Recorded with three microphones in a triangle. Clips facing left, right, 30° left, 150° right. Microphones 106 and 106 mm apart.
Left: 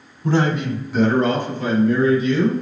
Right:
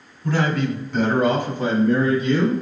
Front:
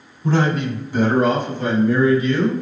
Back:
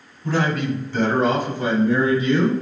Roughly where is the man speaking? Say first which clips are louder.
Left 2 dB, front 2 dB; ahead left.